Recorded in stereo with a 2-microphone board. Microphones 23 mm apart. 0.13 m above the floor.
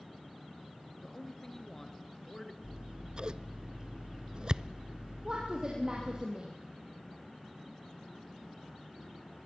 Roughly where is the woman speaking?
Right.